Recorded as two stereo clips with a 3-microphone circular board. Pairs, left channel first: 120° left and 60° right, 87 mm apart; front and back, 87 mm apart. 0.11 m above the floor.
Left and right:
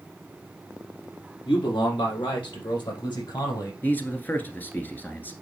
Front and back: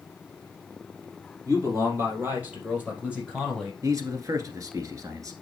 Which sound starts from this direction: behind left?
A man speaking, at 1.4 s.